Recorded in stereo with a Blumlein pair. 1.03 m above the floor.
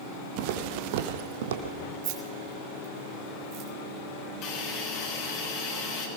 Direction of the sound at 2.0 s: 40° right.